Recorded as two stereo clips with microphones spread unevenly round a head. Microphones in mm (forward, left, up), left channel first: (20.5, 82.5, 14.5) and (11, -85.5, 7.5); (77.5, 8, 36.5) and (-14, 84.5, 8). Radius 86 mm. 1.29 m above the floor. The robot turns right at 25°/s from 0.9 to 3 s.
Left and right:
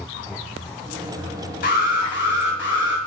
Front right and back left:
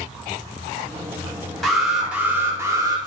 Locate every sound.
1.6 s an alarm: 50° left, 1.7 m; by 3.0 s 85° left, 1.7 m